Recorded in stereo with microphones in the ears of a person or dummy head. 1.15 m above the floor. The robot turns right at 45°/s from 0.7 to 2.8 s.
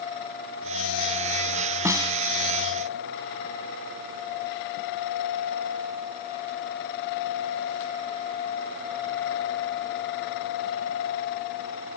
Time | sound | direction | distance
1.9 | a snare drum | 15° right (ahead or behind) | ?